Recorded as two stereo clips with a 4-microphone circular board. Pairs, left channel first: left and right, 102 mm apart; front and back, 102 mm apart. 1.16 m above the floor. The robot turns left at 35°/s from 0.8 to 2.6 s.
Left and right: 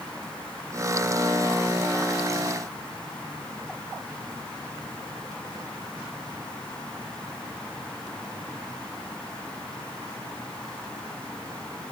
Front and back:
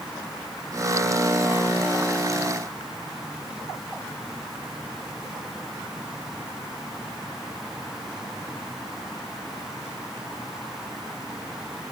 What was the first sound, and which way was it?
Only background noise.